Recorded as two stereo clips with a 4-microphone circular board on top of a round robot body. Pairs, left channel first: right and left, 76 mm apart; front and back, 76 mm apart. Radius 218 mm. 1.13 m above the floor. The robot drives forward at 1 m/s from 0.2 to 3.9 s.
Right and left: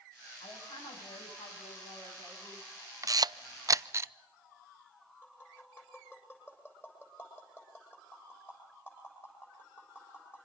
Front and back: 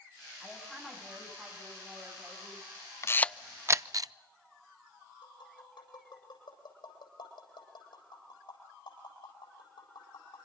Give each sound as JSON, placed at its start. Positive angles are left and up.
{"t": 0.4, "sound": "a woman speaking", "azimuth_deg": -95, "distance_m": 9.5}
{"t": 3.0, "sound": "a camera shutter", "azimuth_deg": 50, "distance_m": 0.7}
{"t": 5.2, "sound": "tapping", "azimuth_deg": -25, "distance_m": 8.5}